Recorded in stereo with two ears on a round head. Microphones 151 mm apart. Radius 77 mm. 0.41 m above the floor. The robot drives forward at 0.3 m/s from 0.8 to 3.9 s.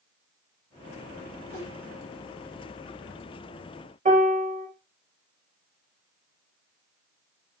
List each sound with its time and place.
1.5 s a whoosh: 30° right (ahead or behind), 2.0 m
4.0 s a piano: 40° right (ahead or behind), 0.7 m